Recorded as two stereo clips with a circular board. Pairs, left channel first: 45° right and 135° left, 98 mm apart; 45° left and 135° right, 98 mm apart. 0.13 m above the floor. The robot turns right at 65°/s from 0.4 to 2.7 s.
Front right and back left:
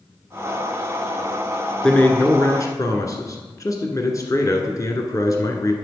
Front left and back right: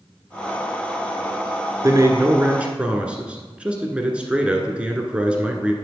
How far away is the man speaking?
About 1.3 m.